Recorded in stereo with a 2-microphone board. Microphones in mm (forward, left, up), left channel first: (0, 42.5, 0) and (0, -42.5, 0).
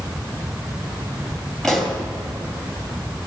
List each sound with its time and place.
1.6 s a pop: 5° left (ahead or behind), 2.0 m